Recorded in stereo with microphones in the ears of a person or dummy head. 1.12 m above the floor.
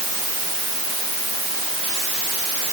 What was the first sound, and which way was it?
Only background noise.